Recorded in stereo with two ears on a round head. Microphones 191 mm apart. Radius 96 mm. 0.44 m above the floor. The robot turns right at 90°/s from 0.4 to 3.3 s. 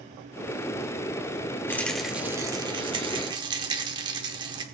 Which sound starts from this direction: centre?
A rattle, at 1.7 s.